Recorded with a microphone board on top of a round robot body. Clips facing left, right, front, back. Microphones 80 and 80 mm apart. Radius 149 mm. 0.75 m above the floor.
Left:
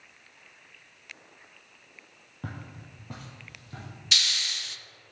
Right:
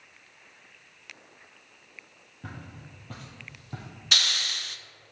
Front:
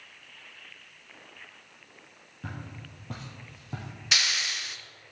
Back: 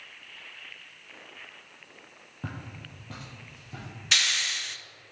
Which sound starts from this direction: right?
A hiss, at 4.1 s.